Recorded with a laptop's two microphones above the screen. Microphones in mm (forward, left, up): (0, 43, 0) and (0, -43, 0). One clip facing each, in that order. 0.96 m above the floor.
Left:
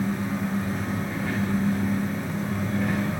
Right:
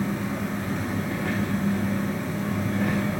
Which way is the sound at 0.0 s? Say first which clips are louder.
Left 1 dB; 80° right.